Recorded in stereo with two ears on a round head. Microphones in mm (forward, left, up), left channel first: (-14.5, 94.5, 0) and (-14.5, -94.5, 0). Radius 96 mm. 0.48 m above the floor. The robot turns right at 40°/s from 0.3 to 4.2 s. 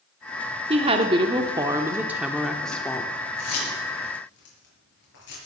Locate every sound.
0.7 s a woman speaking: 30° right (ahead or behind), 0.9 m; by 3.1 s 10° left (ahead or behind), 0.9 m
3.4 s keys jangling: 85° left, 6.5 m; by 5.4 s 60° left (ahead or behind), 6.5 m